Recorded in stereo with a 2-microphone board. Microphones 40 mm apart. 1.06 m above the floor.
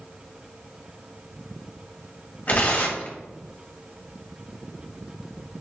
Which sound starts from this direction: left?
Tearing paper, at 2.5 s.